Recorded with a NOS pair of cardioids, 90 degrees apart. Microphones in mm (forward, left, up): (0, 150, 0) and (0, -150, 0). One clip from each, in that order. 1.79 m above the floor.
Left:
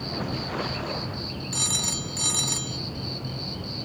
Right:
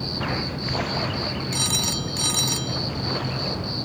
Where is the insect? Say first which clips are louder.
Right 4 dB; 35° right.